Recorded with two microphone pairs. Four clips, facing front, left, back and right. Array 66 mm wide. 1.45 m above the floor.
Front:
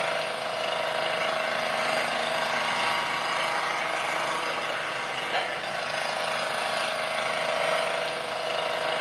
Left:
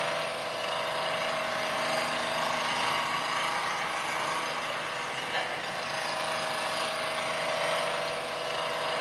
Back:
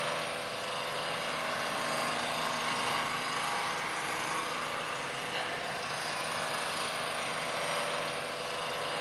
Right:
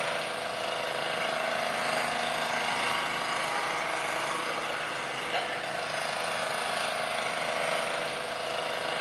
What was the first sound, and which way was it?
An engine running, 20° right.